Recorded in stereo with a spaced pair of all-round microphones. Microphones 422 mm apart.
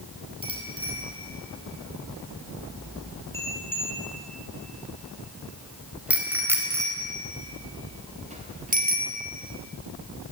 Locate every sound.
0.4 s a bicycle bell: 10° left (ahead or behind), 8 m; by 9.1 s 20° right (ahead or behind), 3.5 m